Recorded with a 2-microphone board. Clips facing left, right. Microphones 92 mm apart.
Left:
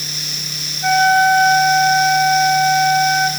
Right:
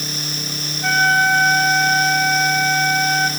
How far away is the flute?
About 2 m.